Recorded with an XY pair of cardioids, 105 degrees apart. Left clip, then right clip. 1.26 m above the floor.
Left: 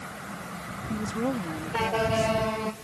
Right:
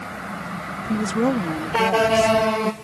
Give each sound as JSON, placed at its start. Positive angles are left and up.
{"t": 0.9, "sound": "a woman speaking", "azimuth_deg": -55}